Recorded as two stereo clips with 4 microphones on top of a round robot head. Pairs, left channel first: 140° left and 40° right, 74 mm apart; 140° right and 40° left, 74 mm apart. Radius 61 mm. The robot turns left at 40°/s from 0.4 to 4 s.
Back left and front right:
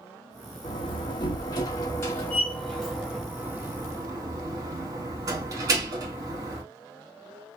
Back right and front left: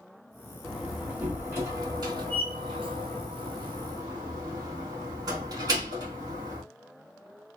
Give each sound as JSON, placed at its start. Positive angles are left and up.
{"t": 0.6, "sound": "a door slam", "azimuth_deg": 135, "distance_m": 1.9}